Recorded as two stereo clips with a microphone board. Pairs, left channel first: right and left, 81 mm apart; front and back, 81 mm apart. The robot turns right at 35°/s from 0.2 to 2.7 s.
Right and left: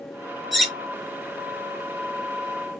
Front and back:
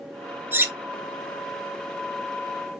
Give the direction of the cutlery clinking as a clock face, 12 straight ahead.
6 o'clock.